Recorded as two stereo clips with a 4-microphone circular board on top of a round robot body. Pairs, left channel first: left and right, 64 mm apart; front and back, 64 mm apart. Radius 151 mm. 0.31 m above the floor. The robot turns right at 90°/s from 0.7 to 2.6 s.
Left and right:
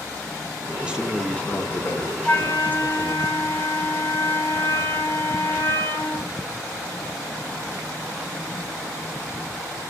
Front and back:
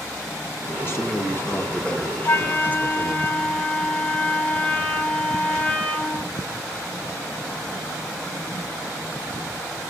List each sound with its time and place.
0.8 s a man speaking: 30° right, 1.0 m; by 3.2 s 130° left, 1.0 m
2.2 s a flute: 30° left, 1.4 m; by 6.3 s 65° left, 1.4 m